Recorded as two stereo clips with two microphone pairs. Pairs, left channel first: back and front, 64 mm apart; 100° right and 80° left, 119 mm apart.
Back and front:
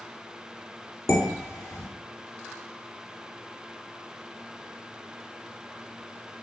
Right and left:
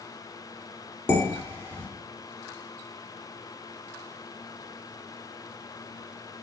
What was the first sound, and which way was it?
Dishes clattering, 170° right.